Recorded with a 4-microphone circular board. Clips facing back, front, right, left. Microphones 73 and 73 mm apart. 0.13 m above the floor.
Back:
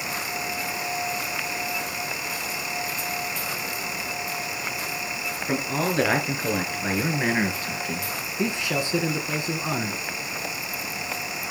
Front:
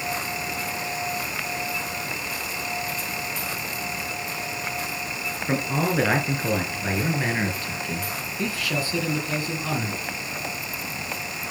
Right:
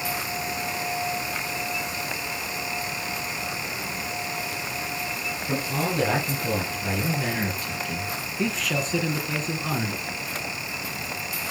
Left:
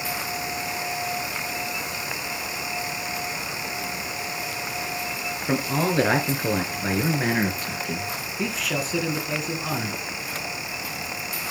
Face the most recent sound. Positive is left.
turn(degrees=175)